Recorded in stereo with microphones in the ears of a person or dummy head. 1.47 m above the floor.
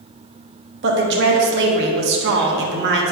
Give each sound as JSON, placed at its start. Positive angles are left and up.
{"t": 0.8, "sound": "a woman speaking", "side_deg": -65, "distance_m": 1.2}